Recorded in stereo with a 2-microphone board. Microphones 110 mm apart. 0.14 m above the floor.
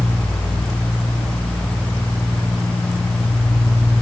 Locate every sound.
Only background noise.